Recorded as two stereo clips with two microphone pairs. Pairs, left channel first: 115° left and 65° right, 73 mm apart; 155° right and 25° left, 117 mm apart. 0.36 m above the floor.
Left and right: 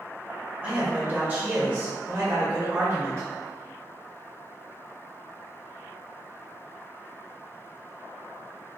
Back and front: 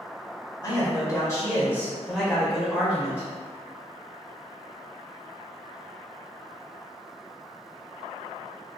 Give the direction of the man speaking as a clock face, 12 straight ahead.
4 o'clock.